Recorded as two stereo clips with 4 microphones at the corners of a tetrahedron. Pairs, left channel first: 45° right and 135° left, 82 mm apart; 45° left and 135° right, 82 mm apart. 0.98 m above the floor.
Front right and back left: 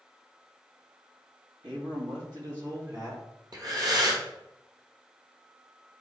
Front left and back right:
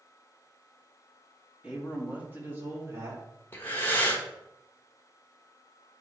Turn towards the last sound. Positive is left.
turn(degrees=110)